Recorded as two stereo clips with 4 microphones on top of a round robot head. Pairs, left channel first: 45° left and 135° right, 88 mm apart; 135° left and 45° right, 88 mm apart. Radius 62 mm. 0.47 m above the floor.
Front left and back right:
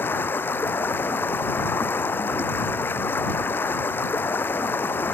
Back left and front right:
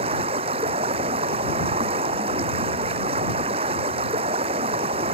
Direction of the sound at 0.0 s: 25° right.